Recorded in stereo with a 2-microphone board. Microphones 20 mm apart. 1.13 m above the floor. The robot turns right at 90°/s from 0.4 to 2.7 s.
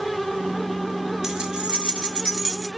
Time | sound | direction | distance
1.2 | keys jangling | 145° right | 1.5 m